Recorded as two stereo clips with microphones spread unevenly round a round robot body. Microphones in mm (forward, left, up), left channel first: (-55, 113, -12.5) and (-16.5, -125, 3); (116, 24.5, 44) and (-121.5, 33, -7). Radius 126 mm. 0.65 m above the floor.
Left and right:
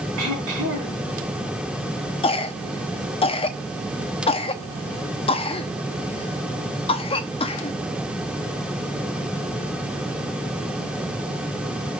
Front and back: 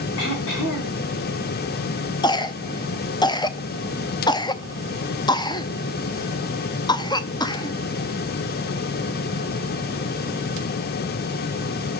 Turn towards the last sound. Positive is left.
turn(degrees=75)